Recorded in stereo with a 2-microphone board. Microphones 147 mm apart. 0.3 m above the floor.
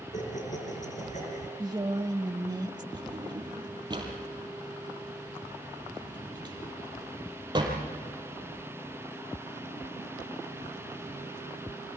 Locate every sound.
0.1 s laughter: 60° left (ahead or behind), 4.5 m
1.6 s a woman speaking: 30° right (ahead or behind), 1.2 m
2.9 s a drawer: 30° right (ahead or behind), 5 m